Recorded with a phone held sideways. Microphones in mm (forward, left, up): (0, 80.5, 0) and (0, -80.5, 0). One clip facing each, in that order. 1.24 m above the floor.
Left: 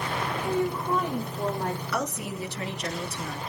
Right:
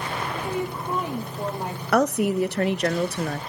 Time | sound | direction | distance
0.3 | a woman speaking | 15° right (ahead or behind) | 3 m
1.9 | a woman speaking | 75° right (ahead or behind) | 0.5 m